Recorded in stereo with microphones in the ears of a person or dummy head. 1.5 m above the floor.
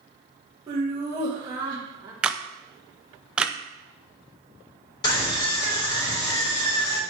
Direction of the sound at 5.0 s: 25° left (ahead or behind).